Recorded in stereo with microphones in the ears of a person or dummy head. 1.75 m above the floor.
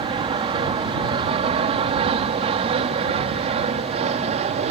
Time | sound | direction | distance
0.0 | an aircraft | 25° right (ahead or behind) | ?